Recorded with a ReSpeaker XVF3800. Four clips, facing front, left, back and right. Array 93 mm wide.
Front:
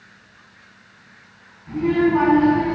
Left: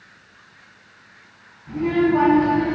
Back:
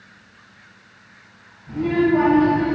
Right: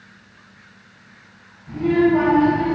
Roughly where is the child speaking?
Ahead left.